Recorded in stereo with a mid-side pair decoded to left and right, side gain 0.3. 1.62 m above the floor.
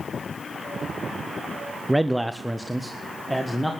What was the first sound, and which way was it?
A man speaking, 15° right.